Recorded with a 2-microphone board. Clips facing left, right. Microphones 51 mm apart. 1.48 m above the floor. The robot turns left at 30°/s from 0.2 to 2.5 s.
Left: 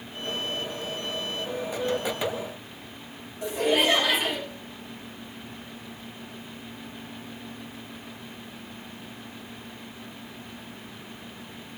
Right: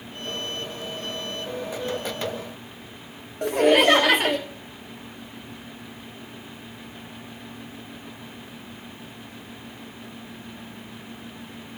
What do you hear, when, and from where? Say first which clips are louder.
3.4 s laughter: right 6 dB; 60° right (ahead or behind), 0.8 m